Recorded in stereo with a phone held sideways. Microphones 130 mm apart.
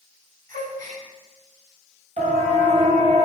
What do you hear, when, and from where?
0.5 s a gasp: 85° right, 9.5 m
2.2 s a siren: 60° right (ahead or behind), 8 m; by 3.3 s 65° right (ahead or behind), 6.5 m